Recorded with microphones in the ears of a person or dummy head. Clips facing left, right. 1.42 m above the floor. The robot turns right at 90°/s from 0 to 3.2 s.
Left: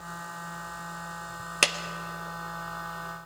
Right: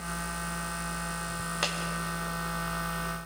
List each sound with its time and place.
1.6 s a clap: 30° left (ahead or behind), 0.6 m; by 1.8 s 25° left (ahead or behind), 0.6 m